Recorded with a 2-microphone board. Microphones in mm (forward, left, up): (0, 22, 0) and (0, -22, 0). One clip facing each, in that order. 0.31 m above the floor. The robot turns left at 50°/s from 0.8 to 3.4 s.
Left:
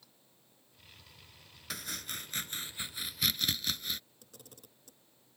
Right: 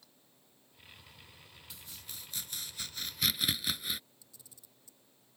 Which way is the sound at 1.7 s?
80° left.